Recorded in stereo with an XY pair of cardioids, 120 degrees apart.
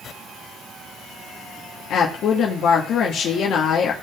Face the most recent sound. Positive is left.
turn(degrees=60)